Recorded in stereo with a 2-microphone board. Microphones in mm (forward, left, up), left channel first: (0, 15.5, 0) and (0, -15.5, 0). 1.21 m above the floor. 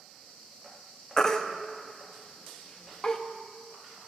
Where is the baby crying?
20° left (ahead or behind), 0.6 m.